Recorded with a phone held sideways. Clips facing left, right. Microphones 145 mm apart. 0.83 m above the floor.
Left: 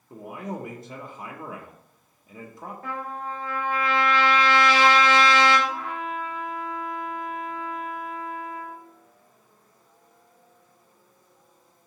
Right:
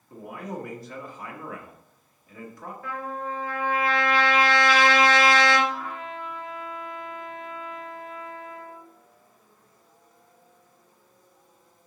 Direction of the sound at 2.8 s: 55° left (ahead or behind).